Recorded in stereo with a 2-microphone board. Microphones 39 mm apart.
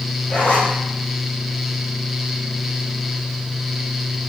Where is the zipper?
40° left (ahead or behind), 5 m.